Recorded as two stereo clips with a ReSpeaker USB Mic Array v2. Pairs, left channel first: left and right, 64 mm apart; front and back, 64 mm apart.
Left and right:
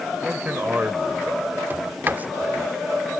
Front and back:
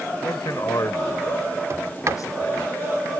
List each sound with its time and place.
0.2 s a man speaking: 25° right
1.7 s a sliding door: 145° right